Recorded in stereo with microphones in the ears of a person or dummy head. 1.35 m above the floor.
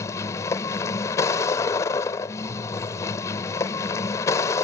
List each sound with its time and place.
0.0 s a vehicle: 15° left (ahead or behind)